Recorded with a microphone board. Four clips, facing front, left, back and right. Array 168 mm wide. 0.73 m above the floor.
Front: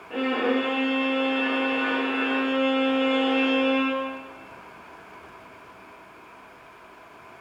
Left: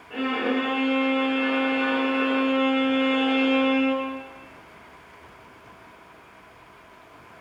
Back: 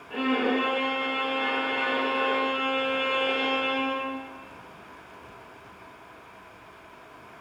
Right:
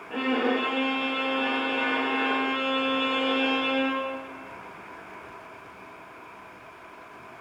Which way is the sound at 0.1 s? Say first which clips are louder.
Even, front 1 dB; 40° right.